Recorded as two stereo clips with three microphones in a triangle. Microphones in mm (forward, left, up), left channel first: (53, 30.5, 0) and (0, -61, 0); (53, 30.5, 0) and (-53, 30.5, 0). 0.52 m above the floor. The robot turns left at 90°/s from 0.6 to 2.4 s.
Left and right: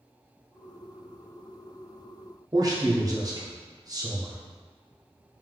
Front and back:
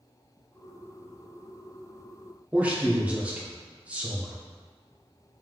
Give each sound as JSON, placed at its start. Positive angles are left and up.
{"t": 2.5, "sound": "a man speaking", "azimuth_deg": -115, "distance_m": 0.7}